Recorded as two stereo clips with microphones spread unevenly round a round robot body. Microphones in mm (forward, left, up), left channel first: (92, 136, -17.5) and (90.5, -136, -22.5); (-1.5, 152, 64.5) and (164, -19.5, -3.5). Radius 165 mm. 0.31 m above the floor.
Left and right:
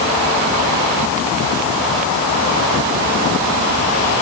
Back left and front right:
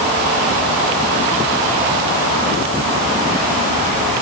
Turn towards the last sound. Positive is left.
No sound to turn to.